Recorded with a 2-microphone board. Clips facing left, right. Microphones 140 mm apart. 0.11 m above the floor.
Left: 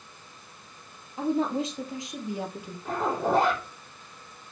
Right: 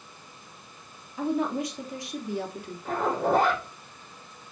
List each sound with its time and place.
1.2 s a woman speaking: 25° left (ahead or behind), 3 m; by 2.8 s 15° left (ahead or behind), 2 m
2.9 s a zipper: centre (ahead or behind), 5 m